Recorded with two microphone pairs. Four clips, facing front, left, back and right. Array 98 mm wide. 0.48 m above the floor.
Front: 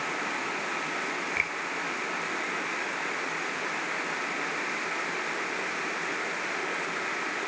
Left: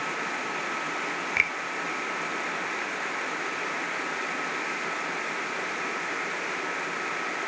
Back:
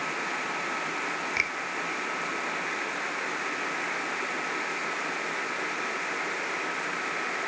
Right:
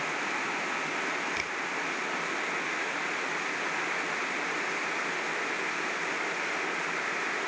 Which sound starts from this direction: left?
A finger snap, at 1.4 s.